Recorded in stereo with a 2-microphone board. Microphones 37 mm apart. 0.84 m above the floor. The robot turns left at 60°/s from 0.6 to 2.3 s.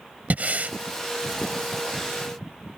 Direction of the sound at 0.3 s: 50° right (ahead or behind).